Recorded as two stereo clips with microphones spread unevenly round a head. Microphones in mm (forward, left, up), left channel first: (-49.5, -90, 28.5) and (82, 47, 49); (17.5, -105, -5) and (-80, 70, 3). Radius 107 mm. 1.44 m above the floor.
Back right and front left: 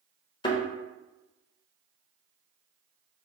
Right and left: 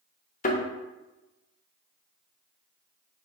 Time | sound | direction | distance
0.4 | a thud | 75° right | 0.8 m